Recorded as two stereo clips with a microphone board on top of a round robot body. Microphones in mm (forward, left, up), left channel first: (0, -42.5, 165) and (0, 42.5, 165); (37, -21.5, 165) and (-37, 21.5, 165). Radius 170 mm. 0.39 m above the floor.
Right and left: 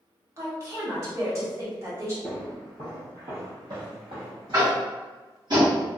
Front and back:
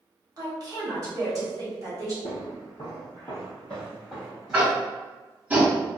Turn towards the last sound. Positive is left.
turn(degrees=80)